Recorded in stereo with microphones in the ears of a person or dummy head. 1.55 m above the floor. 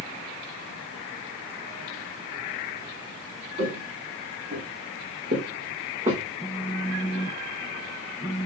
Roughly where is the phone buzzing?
Centre.